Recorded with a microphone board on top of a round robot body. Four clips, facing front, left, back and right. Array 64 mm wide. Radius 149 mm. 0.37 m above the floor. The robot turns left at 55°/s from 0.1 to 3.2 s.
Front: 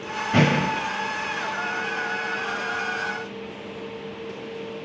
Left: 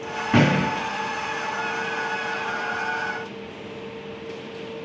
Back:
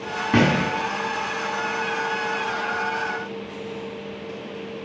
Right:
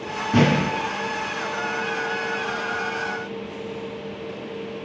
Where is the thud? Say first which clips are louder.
Even, back 1 dB; 135° left, 2.5 m; by 0.7 s 120° left, 2.5 m.